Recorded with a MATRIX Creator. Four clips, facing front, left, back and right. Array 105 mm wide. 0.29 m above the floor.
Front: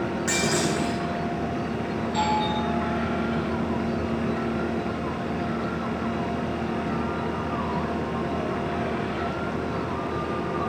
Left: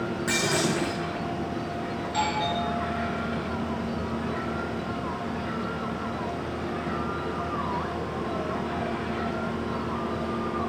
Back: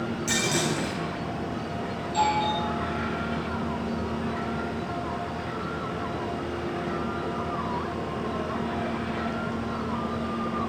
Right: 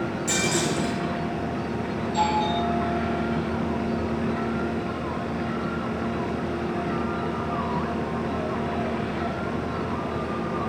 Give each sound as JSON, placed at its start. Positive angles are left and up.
{"t": 0.3, "sound": "breaking glass", "azimuth_deg": 35, "distance_m": 8.0}
{"t": 2.0, "sound": "a doorbell", "azimuth_deg": 60, "distance_m": 6.5}